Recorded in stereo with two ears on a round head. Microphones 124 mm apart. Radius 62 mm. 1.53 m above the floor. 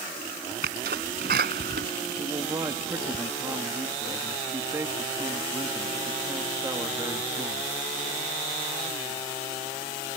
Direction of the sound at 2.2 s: 20° right (ahead or behind).